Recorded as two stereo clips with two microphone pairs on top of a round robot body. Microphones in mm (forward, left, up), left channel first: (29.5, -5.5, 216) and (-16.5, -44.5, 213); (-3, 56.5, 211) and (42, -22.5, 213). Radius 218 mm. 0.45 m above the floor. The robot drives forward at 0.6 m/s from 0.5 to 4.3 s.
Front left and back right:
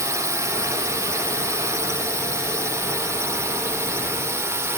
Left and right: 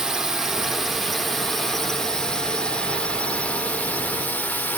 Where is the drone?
145° right; by 4.8 s 175° right.